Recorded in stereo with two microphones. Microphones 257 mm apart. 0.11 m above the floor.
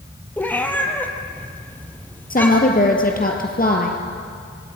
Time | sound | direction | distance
0.4 | a cat meowing | 5° left (ahead or behind) | 1.7 m
2.3 | a woman speaking | 35° left (ahead or behind) | 2 m